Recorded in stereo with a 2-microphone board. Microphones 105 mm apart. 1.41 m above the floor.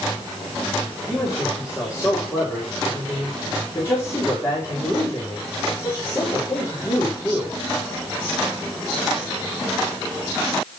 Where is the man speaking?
30° left (ahead or behind), 5 m.